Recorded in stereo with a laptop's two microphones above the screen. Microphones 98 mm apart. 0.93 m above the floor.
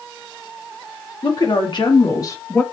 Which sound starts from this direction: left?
A woman speaking, at 1.2 s.